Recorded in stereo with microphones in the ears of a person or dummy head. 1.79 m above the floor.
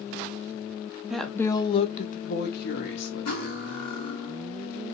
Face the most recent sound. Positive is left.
turn(degrees=55)  # may be behind; listen again after turning